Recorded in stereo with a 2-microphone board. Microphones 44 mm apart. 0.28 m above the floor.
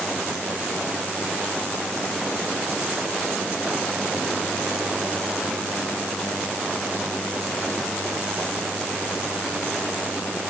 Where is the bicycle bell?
I don't hear a bicycle bell.